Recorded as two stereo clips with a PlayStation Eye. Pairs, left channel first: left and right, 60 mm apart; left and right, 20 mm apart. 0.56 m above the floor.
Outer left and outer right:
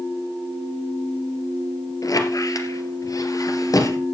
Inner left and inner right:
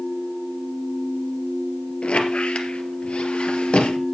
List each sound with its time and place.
2.0 s a squeak: 80° left, 2.5 m